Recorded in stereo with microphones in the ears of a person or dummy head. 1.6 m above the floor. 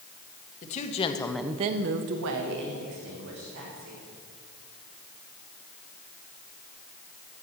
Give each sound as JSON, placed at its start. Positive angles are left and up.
{"t": 0.6, "sound": "a woman speaking", "side_deg": 40, "distance_m": 1.5}